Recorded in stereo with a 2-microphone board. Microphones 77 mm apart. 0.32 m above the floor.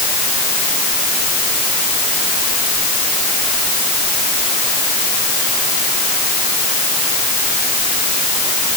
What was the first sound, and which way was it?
Only background noise.